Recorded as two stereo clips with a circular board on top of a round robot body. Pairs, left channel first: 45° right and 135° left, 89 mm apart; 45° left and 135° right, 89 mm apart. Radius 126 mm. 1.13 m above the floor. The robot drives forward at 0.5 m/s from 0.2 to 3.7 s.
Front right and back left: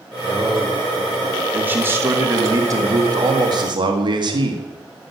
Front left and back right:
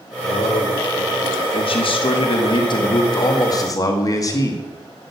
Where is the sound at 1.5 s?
65° left, 2.0 m; by 4.6 s 95° left, 1.8 m.